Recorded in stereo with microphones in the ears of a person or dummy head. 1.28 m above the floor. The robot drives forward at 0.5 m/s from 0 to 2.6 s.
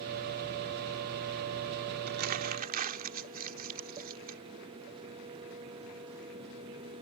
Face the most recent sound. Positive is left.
turn(degrees=-45)  # may be behind; listen again after turning